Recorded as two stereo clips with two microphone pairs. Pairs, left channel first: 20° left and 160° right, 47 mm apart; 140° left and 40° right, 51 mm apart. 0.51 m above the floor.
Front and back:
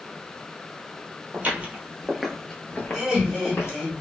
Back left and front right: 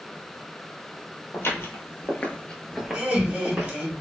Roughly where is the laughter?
Right.